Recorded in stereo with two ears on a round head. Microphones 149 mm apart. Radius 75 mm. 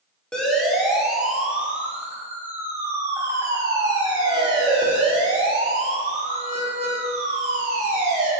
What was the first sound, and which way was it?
A siren, 5° left (ahead or behind).